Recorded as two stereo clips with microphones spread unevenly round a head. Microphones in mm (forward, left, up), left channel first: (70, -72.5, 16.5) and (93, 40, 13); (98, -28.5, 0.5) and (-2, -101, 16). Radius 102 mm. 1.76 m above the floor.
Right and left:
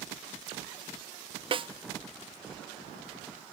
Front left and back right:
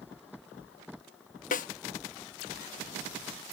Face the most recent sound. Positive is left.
turn(degrees=30)